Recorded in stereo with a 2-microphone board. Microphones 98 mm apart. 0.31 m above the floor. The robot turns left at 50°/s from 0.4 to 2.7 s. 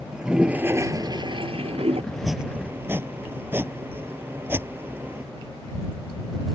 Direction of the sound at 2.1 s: 5° left (ahead or behind).